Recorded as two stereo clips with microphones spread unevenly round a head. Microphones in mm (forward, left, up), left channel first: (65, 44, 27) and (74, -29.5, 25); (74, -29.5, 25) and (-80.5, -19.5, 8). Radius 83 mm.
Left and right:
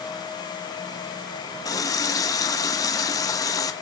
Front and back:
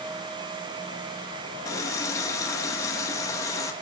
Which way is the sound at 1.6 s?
65° left.